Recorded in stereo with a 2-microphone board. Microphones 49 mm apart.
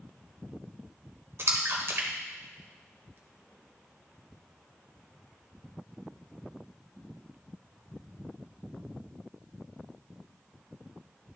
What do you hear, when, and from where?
1.4 s a splash: 55° right (ahead or behind), 1.1 m